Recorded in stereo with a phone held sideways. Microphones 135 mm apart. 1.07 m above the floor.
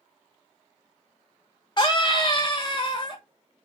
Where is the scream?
35° left (ahead or behind), 0.7 m.